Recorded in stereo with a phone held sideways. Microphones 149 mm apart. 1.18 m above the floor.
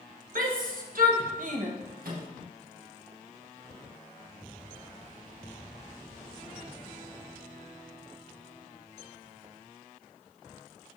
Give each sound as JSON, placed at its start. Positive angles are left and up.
{"t": 0.3, "sound": "a shout", "side_deg": -70, "distance_m": 1.5}
{"t": 2.0, "sound": "a microwave", "side_deg": -75, "distance_m": 1.6}